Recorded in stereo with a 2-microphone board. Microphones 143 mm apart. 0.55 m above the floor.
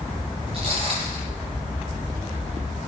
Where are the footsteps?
45° right (ahead or behind), 5 m.